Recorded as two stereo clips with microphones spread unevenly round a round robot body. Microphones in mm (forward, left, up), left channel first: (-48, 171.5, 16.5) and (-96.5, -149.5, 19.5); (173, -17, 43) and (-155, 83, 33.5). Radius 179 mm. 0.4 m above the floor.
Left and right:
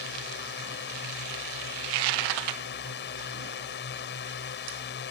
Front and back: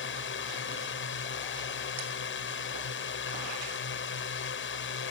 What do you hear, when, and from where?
0.0 s a drone: 30° left